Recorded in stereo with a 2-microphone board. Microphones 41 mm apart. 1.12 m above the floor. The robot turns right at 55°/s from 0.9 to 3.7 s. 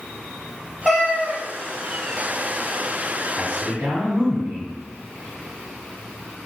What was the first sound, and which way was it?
A cat meowing, 5° left (ahead or behind).